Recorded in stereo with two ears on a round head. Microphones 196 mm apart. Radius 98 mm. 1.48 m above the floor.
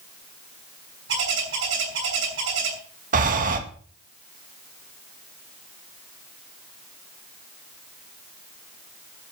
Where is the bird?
60° right (ahead or behind), 6 m.